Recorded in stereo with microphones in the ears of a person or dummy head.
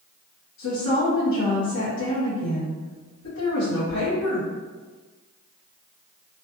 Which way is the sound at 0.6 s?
70° left (ahead or behind).